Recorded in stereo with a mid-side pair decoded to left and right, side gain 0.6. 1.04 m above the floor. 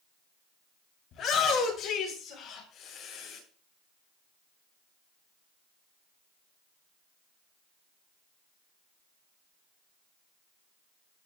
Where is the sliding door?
I don't hear a sliding door.